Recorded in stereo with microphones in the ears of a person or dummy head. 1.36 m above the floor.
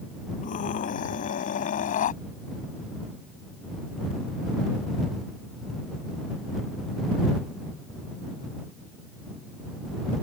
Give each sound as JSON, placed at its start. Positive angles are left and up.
{"t": 0.4, "sound": "a scream", "side_deg": 45}